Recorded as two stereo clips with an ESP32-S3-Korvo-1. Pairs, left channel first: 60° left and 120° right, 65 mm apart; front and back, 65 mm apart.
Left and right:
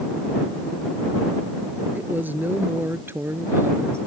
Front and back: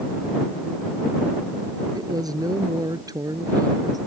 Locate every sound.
1.9 s a woman speaking: straight behind; by 4.0 s 165° right